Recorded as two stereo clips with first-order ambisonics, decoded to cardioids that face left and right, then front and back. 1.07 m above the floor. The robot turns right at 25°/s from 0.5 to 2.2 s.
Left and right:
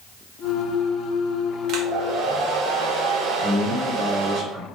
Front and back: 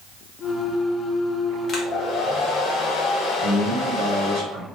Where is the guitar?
No guitar in this recording.